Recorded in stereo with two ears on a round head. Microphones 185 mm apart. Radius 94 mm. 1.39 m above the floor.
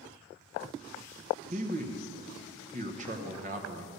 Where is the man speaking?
35° right (ahead or behind), 1.0 m.